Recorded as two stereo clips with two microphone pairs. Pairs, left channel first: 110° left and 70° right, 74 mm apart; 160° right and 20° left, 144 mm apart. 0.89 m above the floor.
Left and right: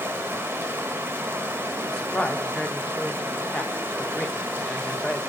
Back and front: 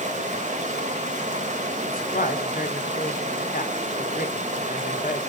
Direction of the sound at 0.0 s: 10° right.